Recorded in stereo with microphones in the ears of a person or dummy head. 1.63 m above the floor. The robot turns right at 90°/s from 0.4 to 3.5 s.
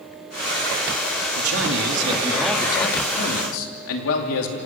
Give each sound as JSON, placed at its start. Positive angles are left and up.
{"t": 1.4, "sound": "a man speaking", "azimuth_deg": -100, "distance_m": 3.0}